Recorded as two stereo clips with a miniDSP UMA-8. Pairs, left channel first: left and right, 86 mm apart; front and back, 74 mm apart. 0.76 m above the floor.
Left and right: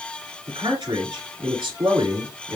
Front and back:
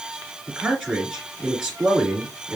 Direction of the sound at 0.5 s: 105° right.